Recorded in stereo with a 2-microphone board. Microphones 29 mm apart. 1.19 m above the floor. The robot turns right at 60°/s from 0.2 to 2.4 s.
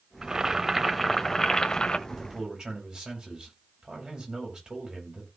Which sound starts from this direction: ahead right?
Boiling, at 0.2 s.